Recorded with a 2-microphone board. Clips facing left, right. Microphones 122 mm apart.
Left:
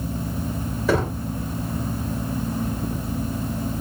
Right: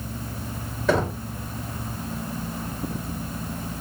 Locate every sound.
0.9 s knocking: 5° left (ahead or behind), 2.5 m